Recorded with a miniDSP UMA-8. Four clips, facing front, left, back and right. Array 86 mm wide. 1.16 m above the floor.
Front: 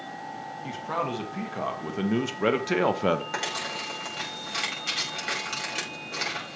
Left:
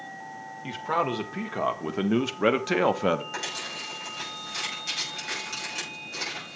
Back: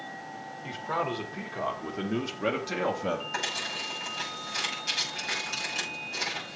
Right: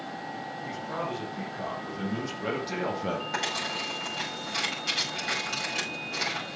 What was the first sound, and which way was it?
A man speaking, 85° left.